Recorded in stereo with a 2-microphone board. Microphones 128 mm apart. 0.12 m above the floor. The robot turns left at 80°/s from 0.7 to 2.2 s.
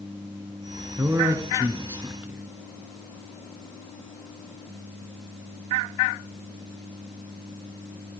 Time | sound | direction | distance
1.0 | a man speaking | 20° right (ahead or behind) | 1.3 m